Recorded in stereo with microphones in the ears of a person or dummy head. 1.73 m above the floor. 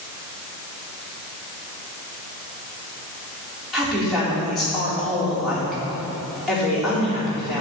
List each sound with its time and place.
3.7 s a woman speaking: centre (ahead or behind), 3.5 m